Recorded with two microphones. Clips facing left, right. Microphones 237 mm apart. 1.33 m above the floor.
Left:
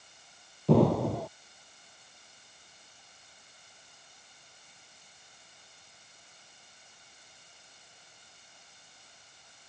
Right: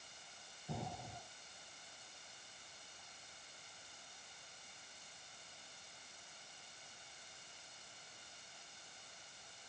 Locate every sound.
0.7 s an explosion: 80° left